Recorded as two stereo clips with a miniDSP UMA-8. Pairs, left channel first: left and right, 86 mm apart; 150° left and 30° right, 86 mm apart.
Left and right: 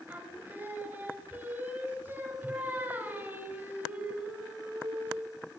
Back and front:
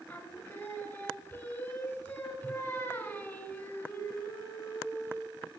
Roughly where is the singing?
Behind right.